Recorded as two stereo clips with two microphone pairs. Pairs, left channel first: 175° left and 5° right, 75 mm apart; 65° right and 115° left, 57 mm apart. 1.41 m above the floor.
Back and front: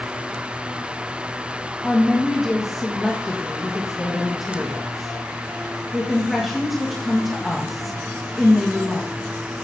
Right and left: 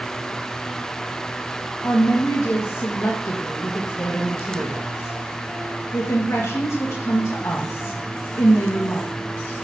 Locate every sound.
1.8 s a woman speaking: 95° right, 1.8 m